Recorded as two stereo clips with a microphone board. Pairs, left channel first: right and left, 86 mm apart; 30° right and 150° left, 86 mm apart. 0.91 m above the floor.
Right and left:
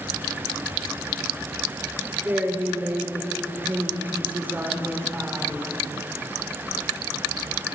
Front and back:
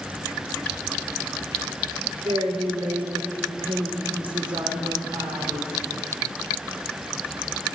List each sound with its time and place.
2.2 s a woman speaking: 155° left, 3.5 m